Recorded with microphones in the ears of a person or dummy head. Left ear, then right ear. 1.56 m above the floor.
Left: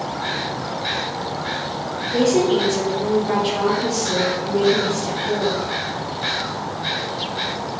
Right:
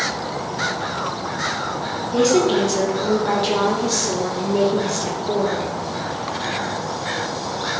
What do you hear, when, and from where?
2.1 s a woman speaking: 60° right (ahead or behind), 1.1 m